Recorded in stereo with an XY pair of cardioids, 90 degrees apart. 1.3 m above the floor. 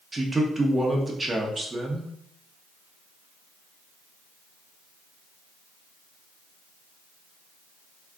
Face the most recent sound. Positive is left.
turn(degrees=-25)